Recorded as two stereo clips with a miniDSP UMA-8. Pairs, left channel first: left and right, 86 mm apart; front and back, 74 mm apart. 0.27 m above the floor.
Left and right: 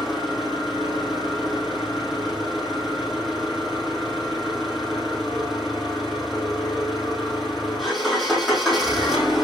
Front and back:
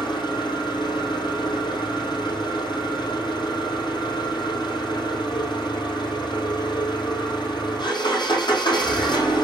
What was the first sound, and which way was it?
An engine running, straight ahead.